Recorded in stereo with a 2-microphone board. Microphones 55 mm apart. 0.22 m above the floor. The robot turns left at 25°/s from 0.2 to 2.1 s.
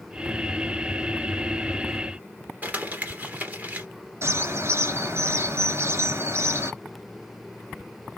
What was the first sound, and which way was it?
Crumpling, 35° right (ahead or behind).